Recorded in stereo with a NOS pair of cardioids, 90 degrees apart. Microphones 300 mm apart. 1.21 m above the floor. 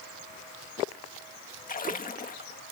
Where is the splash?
30° left.